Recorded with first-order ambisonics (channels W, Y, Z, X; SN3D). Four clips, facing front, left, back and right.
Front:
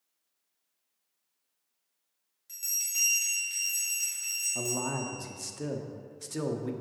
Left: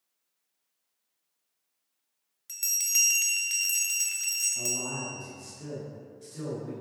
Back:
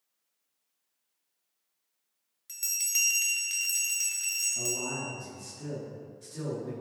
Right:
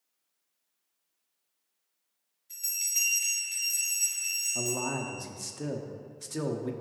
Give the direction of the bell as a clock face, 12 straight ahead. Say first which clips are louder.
Left 4 dB, back 2 dB; 8 o'clock.